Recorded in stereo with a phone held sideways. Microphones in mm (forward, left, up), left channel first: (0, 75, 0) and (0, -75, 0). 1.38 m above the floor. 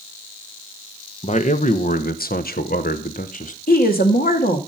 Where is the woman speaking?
80° left, 2 m.